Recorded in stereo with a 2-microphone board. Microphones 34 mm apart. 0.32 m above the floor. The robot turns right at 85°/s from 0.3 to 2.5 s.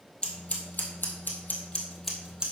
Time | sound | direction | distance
0.2 | scissors | 25° left (ahead or behind) | 1.5 m